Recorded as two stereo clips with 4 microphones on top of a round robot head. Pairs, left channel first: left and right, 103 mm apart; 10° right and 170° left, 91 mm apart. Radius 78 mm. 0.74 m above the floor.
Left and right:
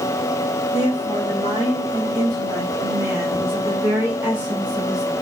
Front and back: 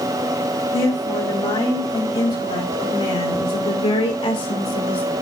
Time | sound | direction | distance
0.7 | a woman speaking | 35° right | 6 m